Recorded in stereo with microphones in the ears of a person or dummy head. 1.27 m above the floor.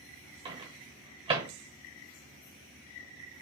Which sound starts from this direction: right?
A microwave, at 0.5 s.